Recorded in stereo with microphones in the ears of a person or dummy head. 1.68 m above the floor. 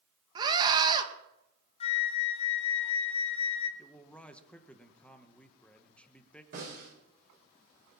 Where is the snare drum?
50° right (ahead or behind), 8.5 m.